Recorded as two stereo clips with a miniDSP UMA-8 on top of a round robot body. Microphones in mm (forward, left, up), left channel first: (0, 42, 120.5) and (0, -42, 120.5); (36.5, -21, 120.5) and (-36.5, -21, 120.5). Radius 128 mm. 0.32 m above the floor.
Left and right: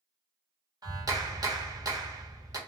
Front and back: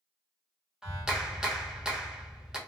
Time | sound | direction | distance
0.8 | a clap | 100° right | 1.5 m